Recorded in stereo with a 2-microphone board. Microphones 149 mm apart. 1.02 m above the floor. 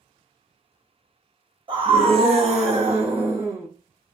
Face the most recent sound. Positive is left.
turn(degrees=-35)  # may be behind; listen again after turning